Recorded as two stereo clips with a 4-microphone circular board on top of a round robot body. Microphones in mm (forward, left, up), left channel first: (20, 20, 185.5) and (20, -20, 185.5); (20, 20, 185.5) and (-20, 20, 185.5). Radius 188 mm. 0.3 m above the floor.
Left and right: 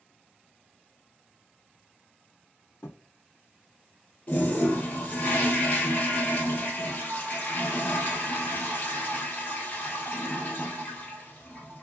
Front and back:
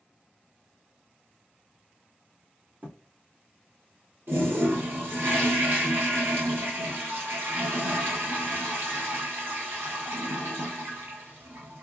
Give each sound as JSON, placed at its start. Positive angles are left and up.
{"t": 2.8, "sound": "a thud", "azimuth_deg": 135, "distance_m": 1.3}
{"t": 4.3, "sound": "a toilet flushing", "azimuth_deg": 145, "distance_m": 1.5}